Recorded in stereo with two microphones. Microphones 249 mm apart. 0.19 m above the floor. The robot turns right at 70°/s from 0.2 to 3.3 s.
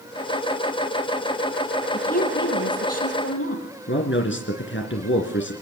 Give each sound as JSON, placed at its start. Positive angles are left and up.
{"t": 1.9, "sound": "a woman speaking", "azimuth_deg": 20, "distance_m": 6.0}
{"t": 3.9, "sound": "a man speaking", "side_deg": 50, "distance_m": 2.5}